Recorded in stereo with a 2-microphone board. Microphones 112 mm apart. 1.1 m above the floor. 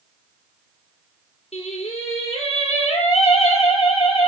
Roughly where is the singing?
Left.